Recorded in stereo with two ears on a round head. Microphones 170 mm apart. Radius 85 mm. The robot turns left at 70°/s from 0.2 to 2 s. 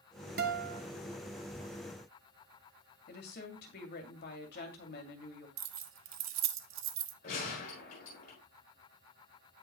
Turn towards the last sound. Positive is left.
turn(degrees=50)  # may be behind; listen again after turning